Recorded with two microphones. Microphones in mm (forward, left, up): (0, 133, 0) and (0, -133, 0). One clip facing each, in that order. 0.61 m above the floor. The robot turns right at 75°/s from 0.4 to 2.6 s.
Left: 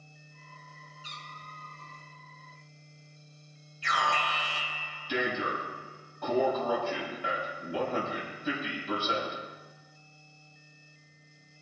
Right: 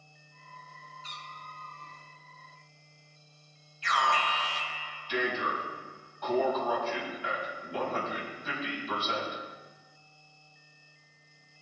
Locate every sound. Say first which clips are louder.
1.0 s a cat meowing: even; 25° right, 2 m; by 2.0 s 50° left, 2 m
3.8 s an alarm: right 1 dB; 65° left (ahead or behind), 4 m